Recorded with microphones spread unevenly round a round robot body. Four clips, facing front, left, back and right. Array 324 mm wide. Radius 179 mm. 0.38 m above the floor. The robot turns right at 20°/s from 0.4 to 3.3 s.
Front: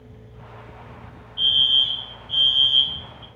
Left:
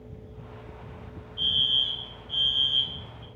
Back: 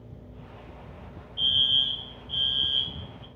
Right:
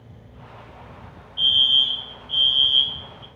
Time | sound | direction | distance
1.4 | a fire alarm | 70° right | 1.9 m